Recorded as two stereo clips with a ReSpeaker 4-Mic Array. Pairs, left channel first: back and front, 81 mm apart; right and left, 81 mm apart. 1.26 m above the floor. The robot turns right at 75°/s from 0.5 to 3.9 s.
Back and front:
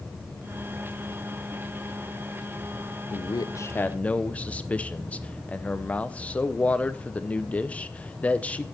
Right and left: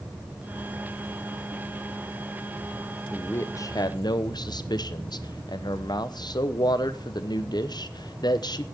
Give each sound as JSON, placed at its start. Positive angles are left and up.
{"t": 3.1, "sound": "a man speaking", "azimuth_deg": -165, "distance_m": 0.7}